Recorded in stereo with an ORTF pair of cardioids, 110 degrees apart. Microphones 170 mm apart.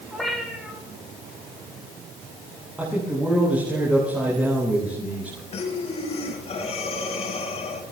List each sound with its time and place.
0.1 s a cat meowing: straight ahead, 7 m
2.8 s a man speaking: 10° right, 10 m
5.5 s breathing: 40° left, 7 m